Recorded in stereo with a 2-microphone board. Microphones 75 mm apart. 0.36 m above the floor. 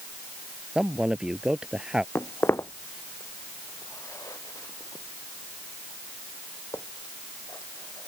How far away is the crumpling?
No crumpling in this recording.